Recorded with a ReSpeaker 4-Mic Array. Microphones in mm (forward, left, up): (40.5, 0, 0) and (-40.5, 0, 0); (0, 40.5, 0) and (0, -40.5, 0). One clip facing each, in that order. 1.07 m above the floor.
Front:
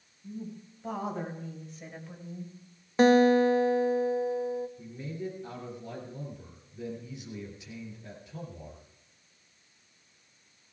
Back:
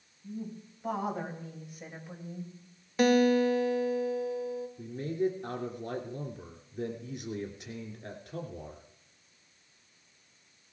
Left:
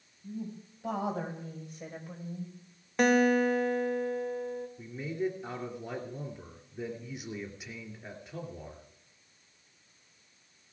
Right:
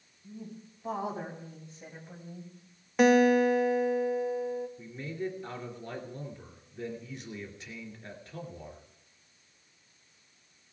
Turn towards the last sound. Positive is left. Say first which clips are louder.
# back 7 dB, left 3 dB
turn(degrees=165)